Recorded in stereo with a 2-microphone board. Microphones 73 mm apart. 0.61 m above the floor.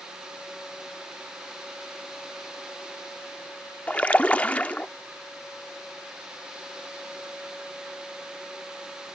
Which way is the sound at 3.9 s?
20° left (ahead or behind).